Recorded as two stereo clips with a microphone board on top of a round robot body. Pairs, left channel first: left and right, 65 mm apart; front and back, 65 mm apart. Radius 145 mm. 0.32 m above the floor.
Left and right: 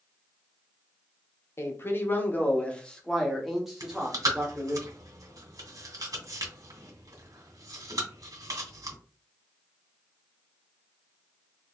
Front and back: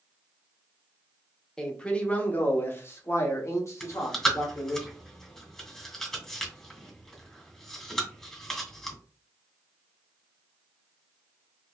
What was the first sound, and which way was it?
A man speaking, 75° left.